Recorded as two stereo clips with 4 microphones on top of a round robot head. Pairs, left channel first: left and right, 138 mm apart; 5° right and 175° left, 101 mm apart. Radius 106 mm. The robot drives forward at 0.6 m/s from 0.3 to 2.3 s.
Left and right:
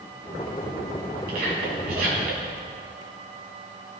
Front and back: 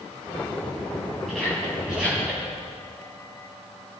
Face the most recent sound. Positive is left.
turn(degrees=-100)